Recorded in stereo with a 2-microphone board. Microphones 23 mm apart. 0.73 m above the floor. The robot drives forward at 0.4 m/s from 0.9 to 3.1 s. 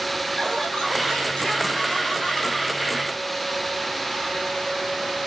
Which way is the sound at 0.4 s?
40° left (ahead or behind).